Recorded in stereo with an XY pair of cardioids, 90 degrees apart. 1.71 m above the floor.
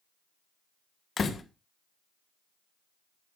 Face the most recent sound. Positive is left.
turn(degrees=50)